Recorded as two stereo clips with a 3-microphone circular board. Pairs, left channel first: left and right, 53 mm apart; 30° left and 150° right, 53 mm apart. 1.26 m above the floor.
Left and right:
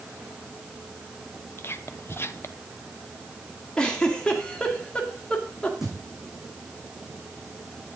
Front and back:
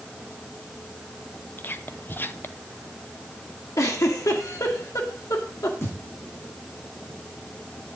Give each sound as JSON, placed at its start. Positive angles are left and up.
{"t": 1.6, "sound": "whispering", "azimuth_deg": 65, "distance_m": 0.8}
{"t": 3.8, "sound": "a giggle", "azimuth_deg": 15, "distance_m": 1.9}
{"t": 5.8, "sound": "a thud", "azimuth_deg": -10, "distance_m": 6.0}